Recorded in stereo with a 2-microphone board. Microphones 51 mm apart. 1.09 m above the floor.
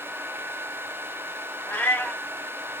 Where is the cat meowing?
30° left (ahead or behind), 0.7 m.